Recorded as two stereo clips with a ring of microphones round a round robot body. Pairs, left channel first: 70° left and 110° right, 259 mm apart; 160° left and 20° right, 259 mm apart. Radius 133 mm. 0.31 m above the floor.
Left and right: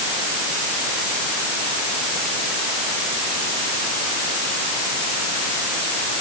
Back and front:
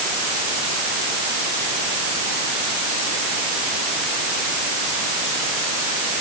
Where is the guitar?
I don't hear a guitar.